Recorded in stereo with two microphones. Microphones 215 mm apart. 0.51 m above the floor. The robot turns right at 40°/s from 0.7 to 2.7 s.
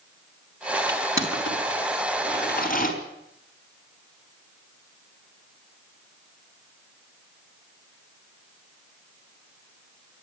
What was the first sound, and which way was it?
Crushing, 65° left (ahead or behind).